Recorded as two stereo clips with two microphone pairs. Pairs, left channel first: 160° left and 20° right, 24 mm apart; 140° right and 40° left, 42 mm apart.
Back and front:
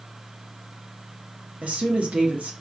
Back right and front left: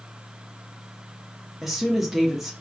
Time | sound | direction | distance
1.6 | a woman speaking | 50° right | 1.4 m